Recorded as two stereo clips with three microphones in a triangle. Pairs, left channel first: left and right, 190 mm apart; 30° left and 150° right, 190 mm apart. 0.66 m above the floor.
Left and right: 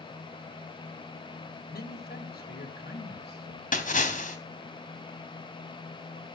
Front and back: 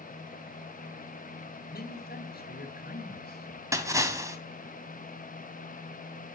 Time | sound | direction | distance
1.6 | a man speaking | 60° left | 3 m
3.7 | a splash | 135° left | 3 m